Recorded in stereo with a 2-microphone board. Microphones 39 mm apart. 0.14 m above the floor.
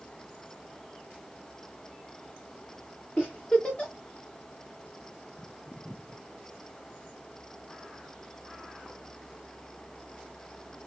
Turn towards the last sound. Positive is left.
turn(degrees=25)  # may be behind; listen again after turning